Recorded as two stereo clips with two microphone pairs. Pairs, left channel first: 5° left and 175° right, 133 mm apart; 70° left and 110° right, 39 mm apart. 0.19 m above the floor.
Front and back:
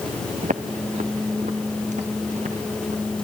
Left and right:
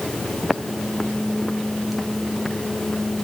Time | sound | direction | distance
0.4 | footsteps | 170° left | 1.2 m